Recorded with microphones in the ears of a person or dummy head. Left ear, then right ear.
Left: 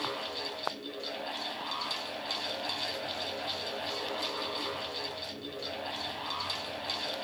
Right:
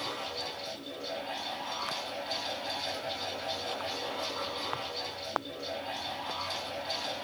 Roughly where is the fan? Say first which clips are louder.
Left 1 dB; left.